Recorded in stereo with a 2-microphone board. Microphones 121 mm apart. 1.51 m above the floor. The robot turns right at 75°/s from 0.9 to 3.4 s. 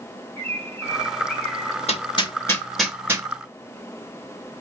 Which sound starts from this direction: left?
Hammering, at 1.9 s.